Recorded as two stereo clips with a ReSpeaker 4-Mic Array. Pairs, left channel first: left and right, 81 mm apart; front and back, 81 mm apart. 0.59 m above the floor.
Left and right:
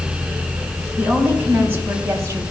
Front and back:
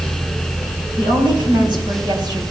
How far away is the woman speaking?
About 4 m.